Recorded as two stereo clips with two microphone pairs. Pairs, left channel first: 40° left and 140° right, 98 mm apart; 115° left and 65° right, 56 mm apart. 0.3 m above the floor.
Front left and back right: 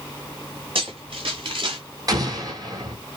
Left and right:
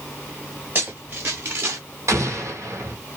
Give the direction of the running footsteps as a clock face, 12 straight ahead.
4 o'clock.